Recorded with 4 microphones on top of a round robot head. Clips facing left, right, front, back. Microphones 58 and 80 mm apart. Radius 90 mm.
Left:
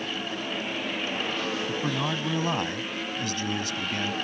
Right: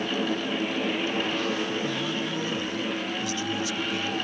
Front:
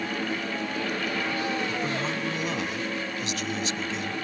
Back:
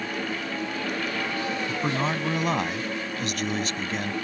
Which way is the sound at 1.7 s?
140° left.